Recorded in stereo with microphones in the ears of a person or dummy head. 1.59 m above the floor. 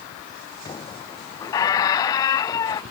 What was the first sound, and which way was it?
A squeak, 20° left (ahead or behind).